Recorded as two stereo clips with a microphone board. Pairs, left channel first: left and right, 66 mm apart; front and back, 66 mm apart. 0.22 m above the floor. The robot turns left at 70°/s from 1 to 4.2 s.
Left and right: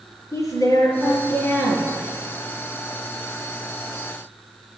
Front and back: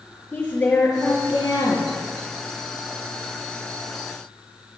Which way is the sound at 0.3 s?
60° left.